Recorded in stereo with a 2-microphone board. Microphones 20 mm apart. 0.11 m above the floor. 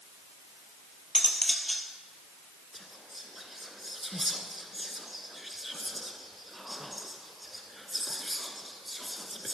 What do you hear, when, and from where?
1.1 s cutlery clinking: 5° left (ahead or behind), 1.8 m
2.7 s whispering: 5° right (ahead or behind), 1.2 m